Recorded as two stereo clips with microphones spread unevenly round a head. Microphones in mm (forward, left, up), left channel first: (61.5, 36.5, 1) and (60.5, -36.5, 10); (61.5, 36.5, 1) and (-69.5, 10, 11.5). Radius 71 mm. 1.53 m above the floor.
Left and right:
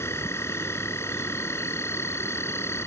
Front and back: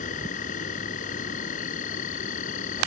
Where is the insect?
35° left.